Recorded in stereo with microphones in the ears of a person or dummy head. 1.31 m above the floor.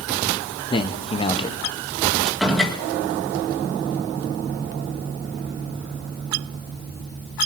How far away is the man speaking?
About 0.7 m.